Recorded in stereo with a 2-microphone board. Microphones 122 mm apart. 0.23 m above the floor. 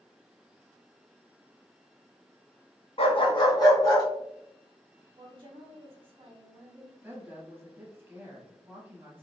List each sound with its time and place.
3.0 s a dog barking: 50° left (ahead or behind), 0.7 m; by 4.0 s 25° left (ahead or behind), 1.8 m
5.2 s a woman speaking: 45° right (ahead or behind), 1.4 m
7.0 s a woman speaking: 20° right (ahead or behind), 1.2 m